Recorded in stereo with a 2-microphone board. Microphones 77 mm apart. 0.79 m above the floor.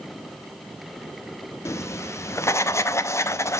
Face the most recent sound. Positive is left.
turn(degrees=40)  # may be behind; listen again after turning